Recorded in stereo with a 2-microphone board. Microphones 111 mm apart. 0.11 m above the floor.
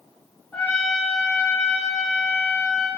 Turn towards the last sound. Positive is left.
turn(degrees=10)  # may be behind; listen again after turning